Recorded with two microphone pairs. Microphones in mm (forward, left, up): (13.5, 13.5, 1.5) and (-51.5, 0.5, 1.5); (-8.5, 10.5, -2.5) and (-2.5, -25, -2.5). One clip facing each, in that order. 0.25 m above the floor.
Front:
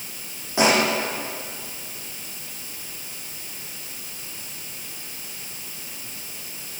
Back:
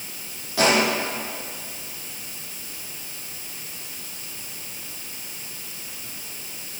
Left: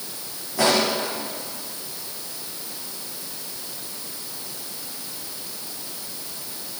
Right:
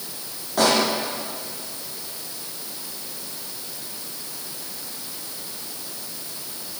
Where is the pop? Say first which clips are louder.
Front 1 dB, right 1 dB; 55° right, 8 m.